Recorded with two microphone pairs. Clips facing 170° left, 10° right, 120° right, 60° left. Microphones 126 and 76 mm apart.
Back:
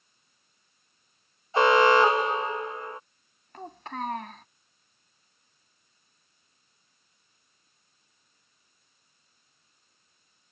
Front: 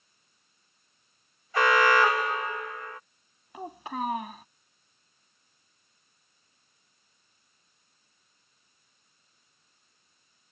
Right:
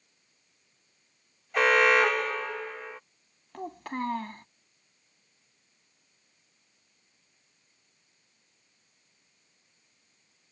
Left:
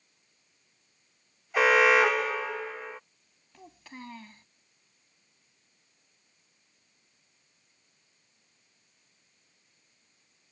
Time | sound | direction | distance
1.5 | an alarm | 150° left | ?
3.5 | a child speaking | 90° right | ?